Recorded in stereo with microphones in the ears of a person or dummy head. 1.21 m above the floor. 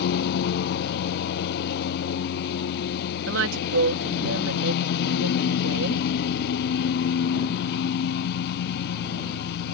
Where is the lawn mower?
55° left (ahead or behind).